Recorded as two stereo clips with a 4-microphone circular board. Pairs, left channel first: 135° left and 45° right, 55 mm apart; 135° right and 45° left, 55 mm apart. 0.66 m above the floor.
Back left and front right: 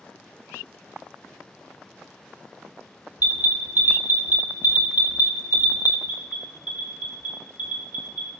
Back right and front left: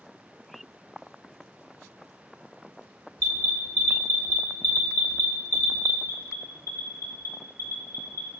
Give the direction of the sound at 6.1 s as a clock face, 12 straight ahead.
4 o'clock.